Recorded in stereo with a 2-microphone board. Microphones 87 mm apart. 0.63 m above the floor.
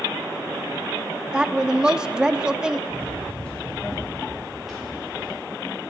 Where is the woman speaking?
10° right (ahead or behind), 0.8 m.